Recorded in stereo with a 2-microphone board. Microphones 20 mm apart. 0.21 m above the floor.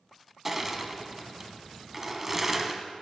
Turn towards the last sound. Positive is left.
turn(degrees=-10)  # may be behind; listen again after turning